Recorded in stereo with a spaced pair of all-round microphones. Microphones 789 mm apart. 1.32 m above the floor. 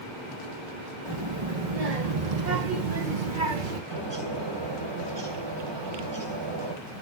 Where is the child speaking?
35° right (ahead or behind), 1.8 m; by 3.8 s 85° right, 1.4 m.